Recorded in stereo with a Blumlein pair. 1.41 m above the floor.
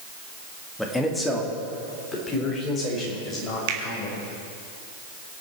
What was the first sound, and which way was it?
A man speaking, 5° left.